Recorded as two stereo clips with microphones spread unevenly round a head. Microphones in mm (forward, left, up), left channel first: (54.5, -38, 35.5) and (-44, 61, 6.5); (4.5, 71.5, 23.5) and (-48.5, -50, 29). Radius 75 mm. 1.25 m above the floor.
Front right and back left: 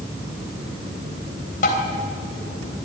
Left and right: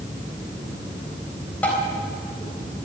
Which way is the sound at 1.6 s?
15° right.